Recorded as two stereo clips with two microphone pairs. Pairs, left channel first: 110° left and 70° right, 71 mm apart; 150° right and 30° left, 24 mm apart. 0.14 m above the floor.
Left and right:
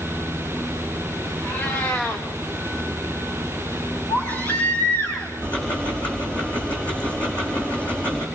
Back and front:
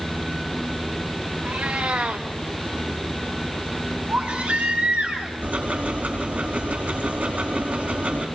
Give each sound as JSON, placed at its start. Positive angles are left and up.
{"t": 1.4, "sound": "a cat meowing", "azimuth_deg": 50, "distance_m": 3.5}
{"t": 4.1, "sound": "a baby crying", "azimuth_deg": 50, "distance_m": 6.5}
{"t": 5.4, "sound": "ticking", "azimuth_deg": 40, "distance_m": 5.0}